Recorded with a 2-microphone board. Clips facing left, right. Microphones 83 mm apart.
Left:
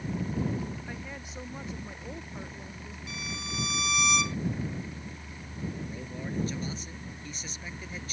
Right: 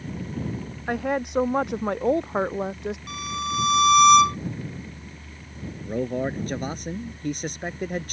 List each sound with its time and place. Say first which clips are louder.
0.9 s a woman speaking: right 16 dB; 65° right (ahead or behind); by 3.0 s 80° right
3.1 s a violin: right 7 dB; 60° right (ahead or behind)
5.8 s a man speaking: right 12 dB; 60° right (ahead or behind)